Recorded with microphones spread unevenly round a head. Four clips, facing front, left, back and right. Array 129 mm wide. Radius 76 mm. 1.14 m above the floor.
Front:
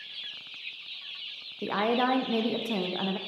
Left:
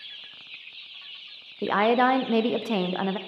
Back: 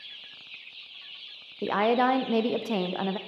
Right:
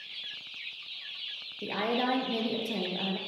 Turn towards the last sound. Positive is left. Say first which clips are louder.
# left 9 dB, back 3 dB
turn(degrees=125)